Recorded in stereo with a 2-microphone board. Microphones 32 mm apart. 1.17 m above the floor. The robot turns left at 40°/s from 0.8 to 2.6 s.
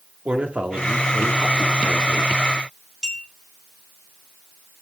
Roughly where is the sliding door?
No sliding door in this recording.